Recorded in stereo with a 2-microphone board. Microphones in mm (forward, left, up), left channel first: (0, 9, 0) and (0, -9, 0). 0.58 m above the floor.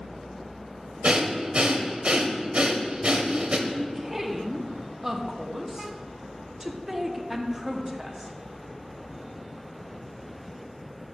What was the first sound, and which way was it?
Breathing, 65° right (ahead or behind).